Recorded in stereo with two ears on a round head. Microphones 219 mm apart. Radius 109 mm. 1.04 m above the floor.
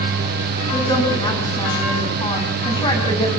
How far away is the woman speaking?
About 10 m.